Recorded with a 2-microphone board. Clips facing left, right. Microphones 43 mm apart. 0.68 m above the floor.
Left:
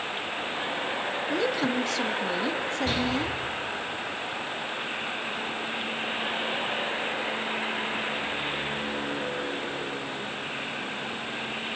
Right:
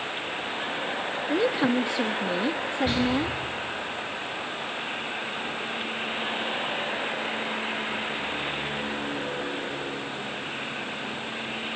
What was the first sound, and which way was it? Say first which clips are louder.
A woman speaking: right 4 dB; 20° right (ahead or behind).